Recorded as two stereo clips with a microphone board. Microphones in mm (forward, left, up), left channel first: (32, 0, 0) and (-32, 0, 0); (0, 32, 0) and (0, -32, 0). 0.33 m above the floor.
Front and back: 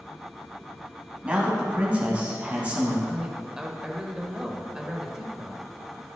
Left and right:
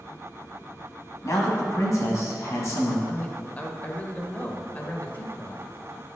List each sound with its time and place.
1.2 s a man speaking: 115° left, 2.5 m
3.1 s a man speaking: 115° left, 1.0 m